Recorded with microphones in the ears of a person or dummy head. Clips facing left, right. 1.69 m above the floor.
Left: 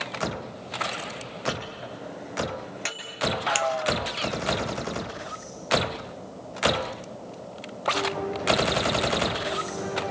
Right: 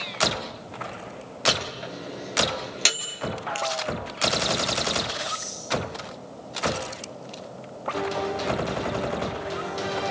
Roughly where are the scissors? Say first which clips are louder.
Left 3 dB; left.